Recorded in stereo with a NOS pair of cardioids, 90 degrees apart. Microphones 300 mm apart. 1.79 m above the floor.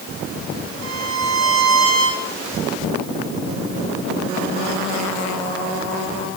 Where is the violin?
60° right, 4 m.